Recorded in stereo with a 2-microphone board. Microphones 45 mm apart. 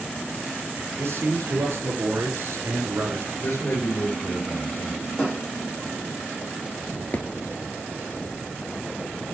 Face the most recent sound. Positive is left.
turn(degrees=40)  # may be behind; listen again after turning